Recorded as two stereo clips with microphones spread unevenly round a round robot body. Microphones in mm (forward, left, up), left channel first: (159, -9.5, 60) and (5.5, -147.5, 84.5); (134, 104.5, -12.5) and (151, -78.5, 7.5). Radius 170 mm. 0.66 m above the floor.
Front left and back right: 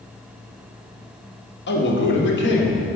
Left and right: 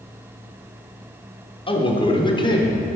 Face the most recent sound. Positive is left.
turn(degrees=30)